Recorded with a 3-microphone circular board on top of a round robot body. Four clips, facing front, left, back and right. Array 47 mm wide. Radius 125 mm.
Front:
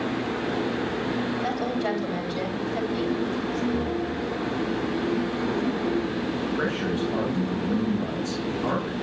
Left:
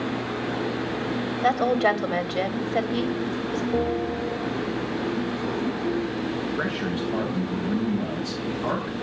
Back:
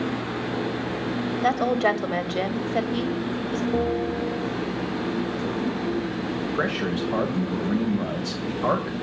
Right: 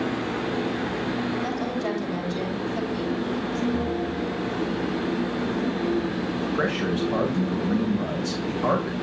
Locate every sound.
1.4 s a woman speaking: 140° left, 3.5 m
3.7 s a bell: 150° left, 3 m
6.5 s a man speaking: 150° right, 6 m